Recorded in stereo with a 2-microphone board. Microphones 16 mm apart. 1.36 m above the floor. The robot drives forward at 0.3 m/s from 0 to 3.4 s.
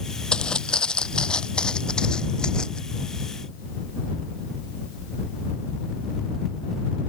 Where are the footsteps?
45° left (ahead or behind); by 2.8 s 50° left (ahead or behind).